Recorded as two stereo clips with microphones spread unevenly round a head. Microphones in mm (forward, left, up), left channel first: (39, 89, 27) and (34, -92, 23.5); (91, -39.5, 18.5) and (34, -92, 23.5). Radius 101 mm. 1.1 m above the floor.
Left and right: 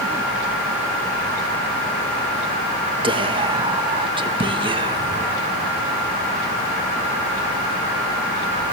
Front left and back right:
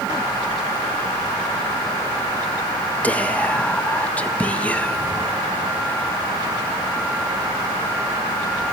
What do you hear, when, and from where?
3.0 s whispering: 30° right, 1.5 m